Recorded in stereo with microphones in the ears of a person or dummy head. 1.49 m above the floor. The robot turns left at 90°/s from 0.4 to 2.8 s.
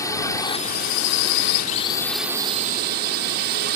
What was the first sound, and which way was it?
A drone, 160° left.